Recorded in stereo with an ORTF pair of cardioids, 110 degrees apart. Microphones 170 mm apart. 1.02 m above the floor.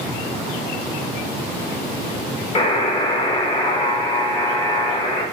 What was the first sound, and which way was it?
A buzzer, 30° left.